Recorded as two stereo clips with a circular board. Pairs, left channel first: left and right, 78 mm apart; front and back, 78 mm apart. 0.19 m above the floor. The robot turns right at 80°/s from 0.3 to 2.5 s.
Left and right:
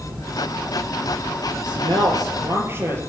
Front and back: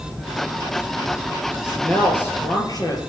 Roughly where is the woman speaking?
Right.